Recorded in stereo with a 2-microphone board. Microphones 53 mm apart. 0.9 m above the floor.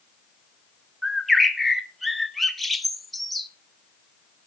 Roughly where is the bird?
Centre.